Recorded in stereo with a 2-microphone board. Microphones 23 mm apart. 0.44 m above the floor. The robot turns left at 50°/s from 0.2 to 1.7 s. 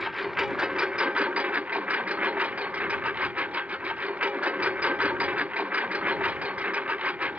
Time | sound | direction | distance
0.0 | a lawn mower | 10° right | ?